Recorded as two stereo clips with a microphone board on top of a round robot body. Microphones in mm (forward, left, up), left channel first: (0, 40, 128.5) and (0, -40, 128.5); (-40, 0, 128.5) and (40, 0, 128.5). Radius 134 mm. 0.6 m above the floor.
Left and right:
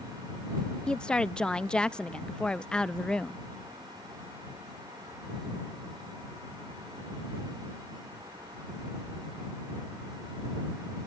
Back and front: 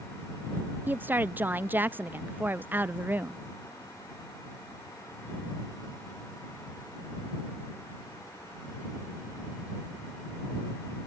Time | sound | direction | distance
0.9 | a woman speaking | 25° left | ?